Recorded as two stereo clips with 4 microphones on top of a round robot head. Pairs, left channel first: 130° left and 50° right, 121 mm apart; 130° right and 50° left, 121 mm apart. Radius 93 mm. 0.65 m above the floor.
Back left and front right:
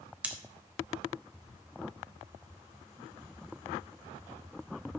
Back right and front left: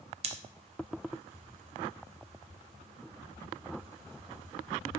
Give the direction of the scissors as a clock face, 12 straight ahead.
11 o'clock.